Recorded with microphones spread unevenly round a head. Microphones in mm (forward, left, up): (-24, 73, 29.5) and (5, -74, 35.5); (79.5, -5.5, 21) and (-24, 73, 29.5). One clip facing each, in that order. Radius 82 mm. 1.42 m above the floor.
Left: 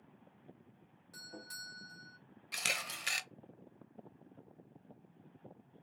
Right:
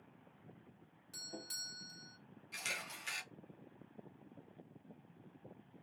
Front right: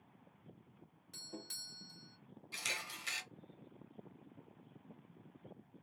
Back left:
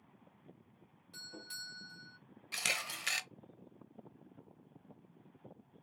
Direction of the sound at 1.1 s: 20° right.